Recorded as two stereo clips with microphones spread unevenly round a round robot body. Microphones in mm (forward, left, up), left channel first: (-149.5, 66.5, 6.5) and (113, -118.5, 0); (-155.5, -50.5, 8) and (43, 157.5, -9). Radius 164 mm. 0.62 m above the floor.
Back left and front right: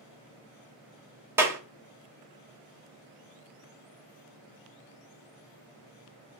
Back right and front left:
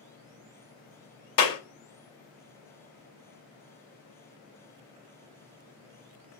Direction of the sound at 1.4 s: 115° right.